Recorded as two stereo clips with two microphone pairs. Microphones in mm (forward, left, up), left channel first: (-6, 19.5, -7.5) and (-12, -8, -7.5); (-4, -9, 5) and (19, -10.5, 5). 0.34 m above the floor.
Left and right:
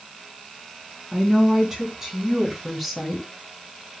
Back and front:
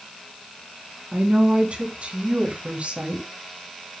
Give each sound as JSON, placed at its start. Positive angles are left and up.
{"t": 1.1, "sound": "a woman speaking", "azimuth_deg": -40, "distance_m": 3.5}